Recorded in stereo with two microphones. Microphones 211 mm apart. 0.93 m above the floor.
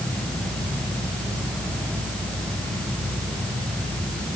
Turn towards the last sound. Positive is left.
No sound to turn to.